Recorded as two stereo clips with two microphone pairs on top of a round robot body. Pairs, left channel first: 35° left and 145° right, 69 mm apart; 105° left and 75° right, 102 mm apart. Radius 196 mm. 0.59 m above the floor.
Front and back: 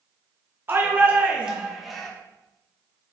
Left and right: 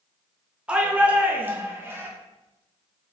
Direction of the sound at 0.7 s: 145° right.